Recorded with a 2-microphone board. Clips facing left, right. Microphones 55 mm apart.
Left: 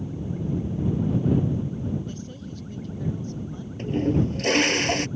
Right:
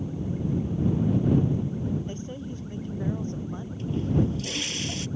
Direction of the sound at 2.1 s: 25° right (ahead or behind).